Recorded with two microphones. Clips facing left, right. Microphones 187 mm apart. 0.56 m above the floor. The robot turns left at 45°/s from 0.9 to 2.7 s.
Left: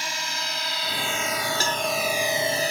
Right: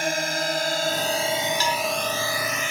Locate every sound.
0.0 s a drone: 55° right (ahead or behind); by 2.7 s 40° left (ahead or behind)
1.6 s a cowbell: 50° left (ahead or behind); by 1.9 s 60° left (ahead or behind)